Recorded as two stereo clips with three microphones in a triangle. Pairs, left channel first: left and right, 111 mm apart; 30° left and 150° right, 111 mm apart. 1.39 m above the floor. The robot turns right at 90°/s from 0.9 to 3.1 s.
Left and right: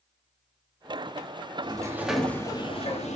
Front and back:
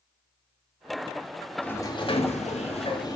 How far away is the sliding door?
About 2.5 m.